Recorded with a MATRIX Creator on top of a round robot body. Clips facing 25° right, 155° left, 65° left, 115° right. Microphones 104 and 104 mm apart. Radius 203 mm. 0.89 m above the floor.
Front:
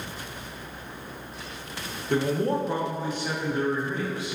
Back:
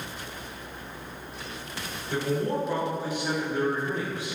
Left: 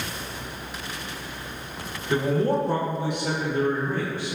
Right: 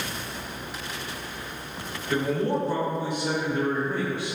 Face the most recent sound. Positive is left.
turn(degrees=115)